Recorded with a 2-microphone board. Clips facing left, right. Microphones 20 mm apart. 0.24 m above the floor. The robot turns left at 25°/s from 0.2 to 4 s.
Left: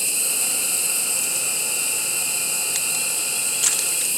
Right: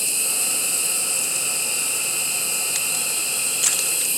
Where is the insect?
Straight ahead, 1.7 m; by 4.2 s 95° right, 1.7 m.